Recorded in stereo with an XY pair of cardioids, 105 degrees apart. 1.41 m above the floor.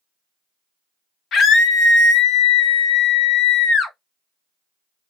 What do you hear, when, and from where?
1.3 s a scream: 65° left, 1.2 m